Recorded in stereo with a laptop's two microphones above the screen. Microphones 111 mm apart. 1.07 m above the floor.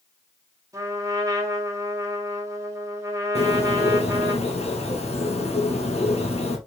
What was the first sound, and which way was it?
A trumpet, 30° right (ahead or behind).